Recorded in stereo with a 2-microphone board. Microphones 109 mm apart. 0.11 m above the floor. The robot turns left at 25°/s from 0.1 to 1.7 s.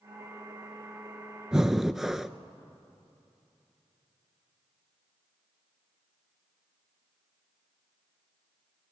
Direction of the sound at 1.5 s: 5° right (ahead or behind).